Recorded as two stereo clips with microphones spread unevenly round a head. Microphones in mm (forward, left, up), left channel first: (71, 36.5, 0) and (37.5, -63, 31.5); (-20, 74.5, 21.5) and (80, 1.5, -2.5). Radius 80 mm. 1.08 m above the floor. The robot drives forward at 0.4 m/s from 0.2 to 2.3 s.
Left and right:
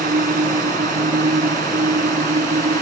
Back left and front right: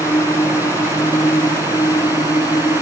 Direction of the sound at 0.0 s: 140° right.